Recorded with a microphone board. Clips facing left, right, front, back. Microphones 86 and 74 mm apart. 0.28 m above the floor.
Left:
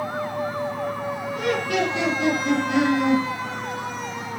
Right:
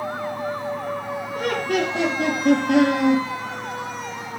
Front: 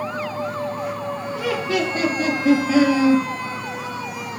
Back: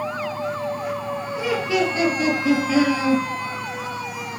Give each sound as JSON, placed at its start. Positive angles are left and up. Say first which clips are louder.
{"t": 1.4, "sound": "laughter", "louder": "right 1 dB, back 1 dB", "azimuth_deg": -40, "distance_m": 5.5}